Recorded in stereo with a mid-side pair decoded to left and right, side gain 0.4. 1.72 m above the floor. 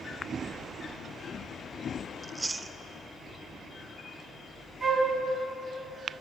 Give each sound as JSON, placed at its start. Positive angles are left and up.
{"t": 2.2, "sound": "chewing", "azimuth_deg": -20, "distance_m": 0.7}
{"t": 4.8, "sound": "a flute", "azimuth_deg": -60, "distance_m": 7.0}